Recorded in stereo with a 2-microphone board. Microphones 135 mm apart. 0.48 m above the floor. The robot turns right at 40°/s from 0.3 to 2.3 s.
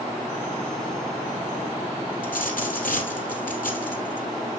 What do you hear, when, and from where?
2.2 s a dropped coin: 85° left, 3 m